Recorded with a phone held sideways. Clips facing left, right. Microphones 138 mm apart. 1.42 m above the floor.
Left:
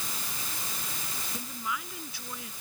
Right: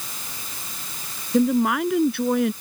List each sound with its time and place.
1.3 s a woman speaking: 70° right (ahead or behind)